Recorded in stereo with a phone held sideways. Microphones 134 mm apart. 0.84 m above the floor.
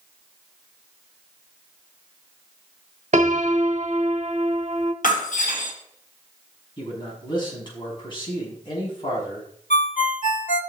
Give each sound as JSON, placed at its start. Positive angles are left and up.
{"t": 3.1, "sound": "a piano", "side_deg": -55, "distance_m": 1.0}
{"t": 5.0, "sound": "breaking glass", "side_deg": 80, "distance_m": 3.0}
{"t": 6.8, "sound": "a man speaking", "side_deg": 35, "distance_m": 5.5}
{"t": 9.7, "sound": "a ringtone", "side_deg": 70, "distance_m": 1.3}